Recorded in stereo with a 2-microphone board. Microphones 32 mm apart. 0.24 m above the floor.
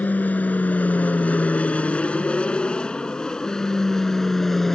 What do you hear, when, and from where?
0.0 s an aircraft: 60° left (ahead or behind); by 4.8 s 10° left (ahead or behind)